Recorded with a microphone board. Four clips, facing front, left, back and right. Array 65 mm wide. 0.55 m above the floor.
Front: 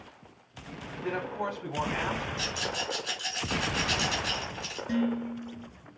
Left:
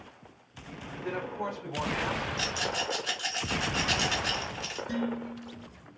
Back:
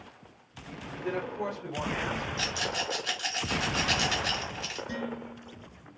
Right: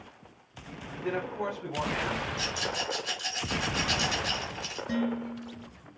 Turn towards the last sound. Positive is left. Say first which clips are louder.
# right 3 dB, front 12 dB
turn(degrees=-70)